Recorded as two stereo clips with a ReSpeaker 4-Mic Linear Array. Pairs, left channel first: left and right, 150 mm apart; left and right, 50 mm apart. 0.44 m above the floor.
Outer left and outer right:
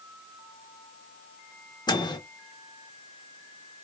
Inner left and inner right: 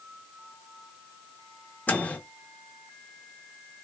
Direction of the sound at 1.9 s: 30° left (ahead or behind).